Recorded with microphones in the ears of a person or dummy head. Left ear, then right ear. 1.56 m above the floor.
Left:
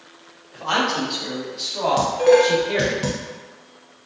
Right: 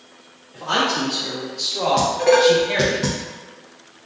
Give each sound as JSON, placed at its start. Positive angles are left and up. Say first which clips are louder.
{"t": 0.5, "sound": "a man speaking", "louder": "right 1 dB", "side_deg": 30, "distance_m": 1.3}
{"t": 2.0, "sound": "dishes clattering", "louder": "left 1 dB", "side_deg": 5, "distance_m": 0.8}